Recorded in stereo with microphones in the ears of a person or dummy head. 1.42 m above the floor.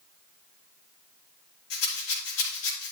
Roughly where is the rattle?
Left.